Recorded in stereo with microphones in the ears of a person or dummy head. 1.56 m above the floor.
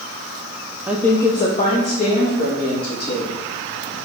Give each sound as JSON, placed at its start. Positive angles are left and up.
{"t": 0.9, "sound": "a woman speaking", "side_deg": -10, "distance_m": 0.6}